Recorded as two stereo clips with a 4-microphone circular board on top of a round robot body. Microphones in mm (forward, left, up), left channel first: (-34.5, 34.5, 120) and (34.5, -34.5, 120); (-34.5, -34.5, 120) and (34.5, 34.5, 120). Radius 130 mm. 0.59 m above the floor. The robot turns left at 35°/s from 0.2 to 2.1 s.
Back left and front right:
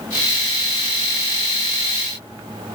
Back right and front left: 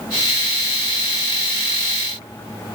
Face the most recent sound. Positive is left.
No sound to turn to.